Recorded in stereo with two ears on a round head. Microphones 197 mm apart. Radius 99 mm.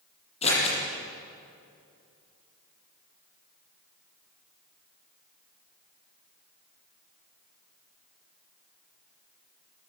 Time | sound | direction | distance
0.4 | scissors | 30° left (ahead or behind) | 9.5 m